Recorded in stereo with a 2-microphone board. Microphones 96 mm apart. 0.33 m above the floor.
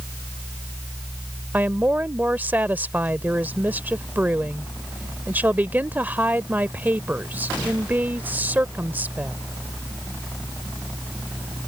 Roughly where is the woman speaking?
Centre.